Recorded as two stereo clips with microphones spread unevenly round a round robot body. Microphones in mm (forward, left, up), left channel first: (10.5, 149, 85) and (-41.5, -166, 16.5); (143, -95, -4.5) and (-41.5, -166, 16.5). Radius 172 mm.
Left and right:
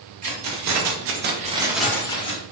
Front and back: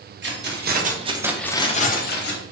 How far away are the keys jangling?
About 0.9 m.